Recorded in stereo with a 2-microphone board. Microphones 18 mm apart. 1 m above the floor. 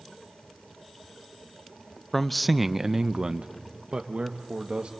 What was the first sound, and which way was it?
A man speaking, 20° left (ahead or behind).